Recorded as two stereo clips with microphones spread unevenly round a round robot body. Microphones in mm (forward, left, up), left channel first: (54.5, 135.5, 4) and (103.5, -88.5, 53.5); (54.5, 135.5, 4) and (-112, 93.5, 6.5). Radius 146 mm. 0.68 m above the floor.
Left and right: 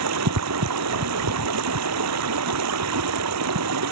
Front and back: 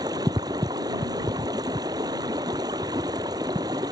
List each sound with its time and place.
0.0 s running water: 90° right